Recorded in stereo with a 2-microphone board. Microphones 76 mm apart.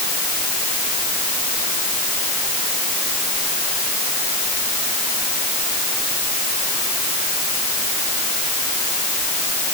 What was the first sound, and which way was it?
Only background noise.